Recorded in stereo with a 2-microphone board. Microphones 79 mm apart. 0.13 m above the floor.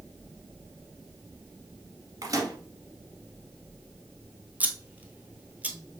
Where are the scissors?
20° right (ahead or behind), 0.6 m.